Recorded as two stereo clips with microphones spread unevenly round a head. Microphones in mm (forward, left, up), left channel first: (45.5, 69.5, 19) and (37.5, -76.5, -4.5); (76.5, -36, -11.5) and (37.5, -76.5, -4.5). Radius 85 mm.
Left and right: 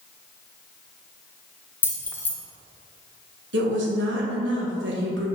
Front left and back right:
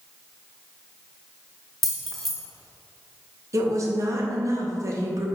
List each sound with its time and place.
1.8 s keys jangling: 145° left, 0.6 m
3.5 s a woman speaking: 120° right, 1.4 m